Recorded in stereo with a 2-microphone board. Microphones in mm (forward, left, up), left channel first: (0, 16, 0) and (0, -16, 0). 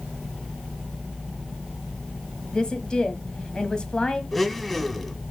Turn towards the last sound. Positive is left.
turn(degrees=5)  # may be behind; listen again after turning